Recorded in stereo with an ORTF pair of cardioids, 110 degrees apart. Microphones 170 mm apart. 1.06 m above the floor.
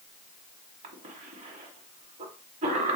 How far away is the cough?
About 1.4 m.